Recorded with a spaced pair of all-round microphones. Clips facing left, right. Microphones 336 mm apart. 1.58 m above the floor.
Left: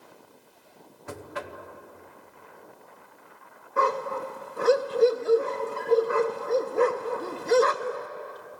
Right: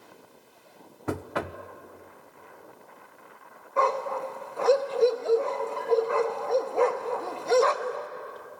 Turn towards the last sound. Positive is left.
turn(degrees=25)  # may be behind; listen again after turning